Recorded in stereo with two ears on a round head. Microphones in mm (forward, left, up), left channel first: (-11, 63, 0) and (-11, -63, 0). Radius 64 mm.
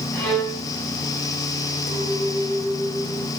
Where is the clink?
70° left (ahead or behind), 2.5 m.